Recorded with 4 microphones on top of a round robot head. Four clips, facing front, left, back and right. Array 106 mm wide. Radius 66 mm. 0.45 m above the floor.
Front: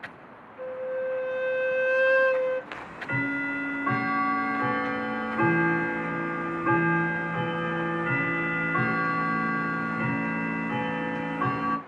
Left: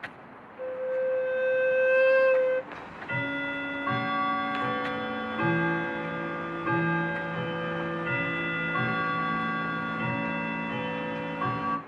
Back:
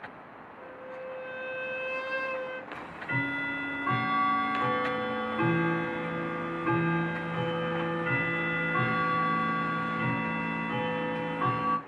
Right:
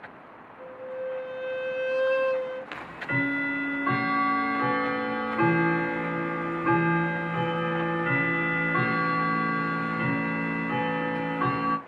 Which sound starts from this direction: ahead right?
Ticking, at 2.7 s.